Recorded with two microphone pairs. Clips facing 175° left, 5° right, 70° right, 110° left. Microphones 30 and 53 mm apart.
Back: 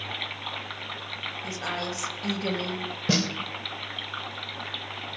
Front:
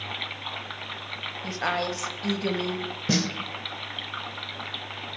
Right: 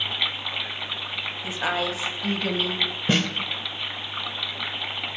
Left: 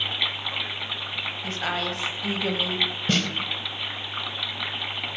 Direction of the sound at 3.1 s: 125° right.